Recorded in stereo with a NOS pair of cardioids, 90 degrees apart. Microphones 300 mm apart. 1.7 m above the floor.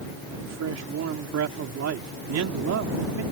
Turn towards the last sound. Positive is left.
turn(degrees=-60)